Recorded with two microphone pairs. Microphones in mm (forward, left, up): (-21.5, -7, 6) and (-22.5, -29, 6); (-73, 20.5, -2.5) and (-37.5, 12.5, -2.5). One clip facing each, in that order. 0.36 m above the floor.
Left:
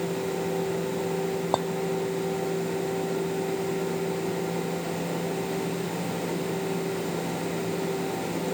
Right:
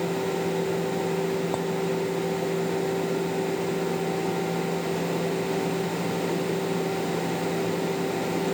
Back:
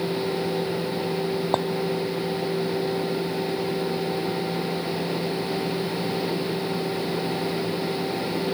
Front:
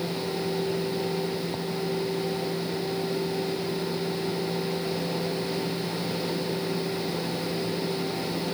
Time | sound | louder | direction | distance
1.5 | a clink | left 3 dB, back 9 dB | 150° left | ?